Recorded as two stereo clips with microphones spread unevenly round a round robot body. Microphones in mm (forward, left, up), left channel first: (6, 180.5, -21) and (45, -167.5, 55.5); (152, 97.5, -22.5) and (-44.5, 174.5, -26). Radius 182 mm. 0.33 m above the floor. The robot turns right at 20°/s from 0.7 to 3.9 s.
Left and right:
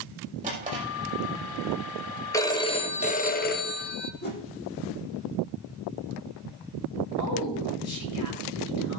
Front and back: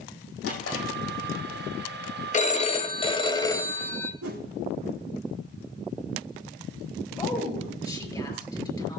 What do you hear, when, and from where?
0.4 s a drawer: 15° right, 5.5 m; by 0.8 s 10° right, 5.5 m
2.3 s a phone ringing: 25° left, 1.3 m; by 4.1 s 55° left, 1.3 m
4.2 s a whoosh: 160° left, 3.5 m
7.2 s a woman speaking: 50° left, 5.5 m